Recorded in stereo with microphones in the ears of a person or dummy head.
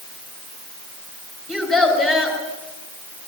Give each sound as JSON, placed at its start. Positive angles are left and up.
{"t": 1.5, "sound": "a child speaking", "side_deg": 0, "distance_m": 4.5}